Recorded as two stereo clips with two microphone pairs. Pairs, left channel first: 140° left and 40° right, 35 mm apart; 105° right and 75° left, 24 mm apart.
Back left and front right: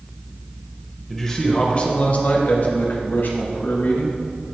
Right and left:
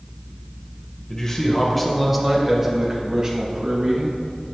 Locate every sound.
1.1 s a man speaking: 140° right, 1.0 m; by 4.2 s 125° left, 2.5 m